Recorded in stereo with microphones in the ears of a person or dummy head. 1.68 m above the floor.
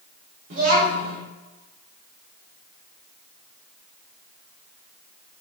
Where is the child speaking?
55° right (ahead or behind), 2.5 m.